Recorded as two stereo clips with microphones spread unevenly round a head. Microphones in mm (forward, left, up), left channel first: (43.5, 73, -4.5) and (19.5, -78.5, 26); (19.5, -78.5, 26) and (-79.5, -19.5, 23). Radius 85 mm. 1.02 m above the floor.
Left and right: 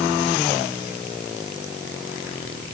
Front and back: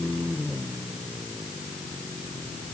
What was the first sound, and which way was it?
Only background noise.